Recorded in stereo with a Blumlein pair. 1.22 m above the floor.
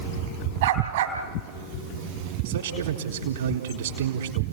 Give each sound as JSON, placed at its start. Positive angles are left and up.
{"t": 0.6, "sound": "a dog barking", "azimuth_deg": -55, "distance_m": 3.0}
{"t": 2.5, "sound": "a man speaking", "azimuth_deg": -60, "distance_m": 4.0}